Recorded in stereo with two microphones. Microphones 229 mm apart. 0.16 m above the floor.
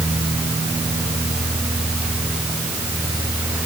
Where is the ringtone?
No ringtone in this recording.